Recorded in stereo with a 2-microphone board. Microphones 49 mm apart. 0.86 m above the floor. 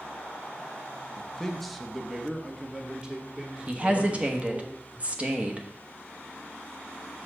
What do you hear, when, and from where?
1.2 s a man speaking: 20° left (ahead or behind), 0.7 m; by 4.7 s 25° right (ahead or behind), 2.5 m
3.7 s a woman speaking: 30° right (ahead or behind), 1.0 m